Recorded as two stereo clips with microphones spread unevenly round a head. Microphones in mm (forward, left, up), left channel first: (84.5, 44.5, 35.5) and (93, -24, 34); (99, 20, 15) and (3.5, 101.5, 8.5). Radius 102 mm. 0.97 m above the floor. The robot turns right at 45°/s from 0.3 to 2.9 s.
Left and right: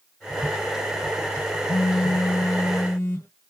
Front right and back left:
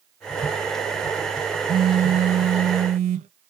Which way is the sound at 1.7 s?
95° left.